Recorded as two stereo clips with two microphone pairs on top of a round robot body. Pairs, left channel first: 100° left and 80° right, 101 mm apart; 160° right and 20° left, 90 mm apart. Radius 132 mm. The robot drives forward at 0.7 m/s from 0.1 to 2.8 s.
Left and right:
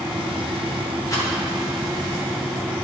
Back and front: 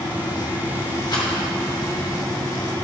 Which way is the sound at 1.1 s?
155° left.